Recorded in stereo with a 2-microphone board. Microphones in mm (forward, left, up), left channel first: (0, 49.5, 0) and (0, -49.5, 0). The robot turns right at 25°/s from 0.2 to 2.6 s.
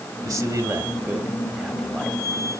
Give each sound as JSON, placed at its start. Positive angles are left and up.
{"t": 0.2, "sound": "a man speaking", "azimuth_deg": -40, "distance_m": 2.5}